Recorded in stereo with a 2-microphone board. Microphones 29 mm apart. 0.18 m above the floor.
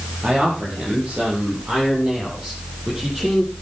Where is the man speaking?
50° right (ahead or behind), 7.5 m; by 3.5 s 20° right (ahead or behind), 8 m.